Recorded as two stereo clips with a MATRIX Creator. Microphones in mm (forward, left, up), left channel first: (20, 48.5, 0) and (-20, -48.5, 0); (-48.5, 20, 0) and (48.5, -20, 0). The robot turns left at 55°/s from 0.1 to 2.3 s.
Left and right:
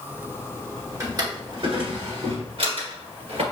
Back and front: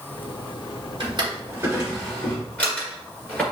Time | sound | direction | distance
1.0 | a drawer | 55° right | 1.8 m